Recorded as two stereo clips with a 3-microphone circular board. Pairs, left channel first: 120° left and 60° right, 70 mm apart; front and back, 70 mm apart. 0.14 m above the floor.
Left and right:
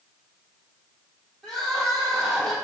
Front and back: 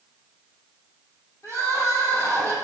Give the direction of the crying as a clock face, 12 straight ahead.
11 o'clock.